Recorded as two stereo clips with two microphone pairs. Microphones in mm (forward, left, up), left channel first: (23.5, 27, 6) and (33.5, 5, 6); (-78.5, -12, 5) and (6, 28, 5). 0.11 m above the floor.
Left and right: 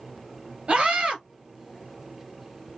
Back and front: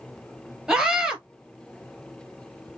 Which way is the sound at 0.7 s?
55° right.